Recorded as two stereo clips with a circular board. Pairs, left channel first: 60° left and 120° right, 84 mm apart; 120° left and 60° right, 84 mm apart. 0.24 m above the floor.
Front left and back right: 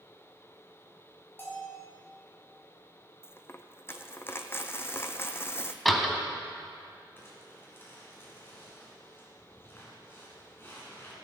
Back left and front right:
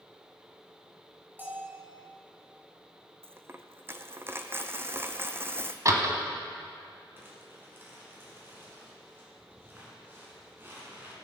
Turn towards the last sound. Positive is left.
turn(degrees=0)